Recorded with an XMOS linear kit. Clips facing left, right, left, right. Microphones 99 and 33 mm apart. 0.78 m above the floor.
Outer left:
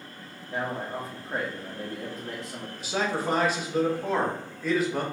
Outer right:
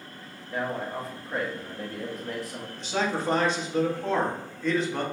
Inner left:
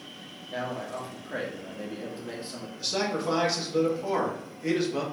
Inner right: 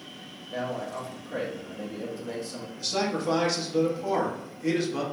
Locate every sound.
0.5 s a man speaking: 25° left (ahead or behind), 1.0 m
2.8 s a man speaking: 5° left (ahead or behind), 0.9 m